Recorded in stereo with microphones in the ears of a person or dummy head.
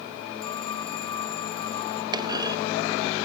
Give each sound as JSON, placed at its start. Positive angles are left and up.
{"t": 0.4, "sound": "a phone ringing", "side_deg": 25}
{"t": 2.1, "sound": "a clunk", "side_deg": -20}